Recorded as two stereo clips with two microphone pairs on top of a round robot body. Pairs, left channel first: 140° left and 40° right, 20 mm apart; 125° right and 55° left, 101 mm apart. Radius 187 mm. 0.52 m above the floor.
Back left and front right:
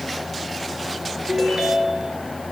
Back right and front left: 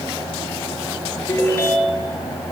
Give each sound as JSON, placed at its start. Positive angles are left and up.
{"t": 1.3, "sound": "a ringtone", "azimuth_deg": -65, "distance_m": 5.0}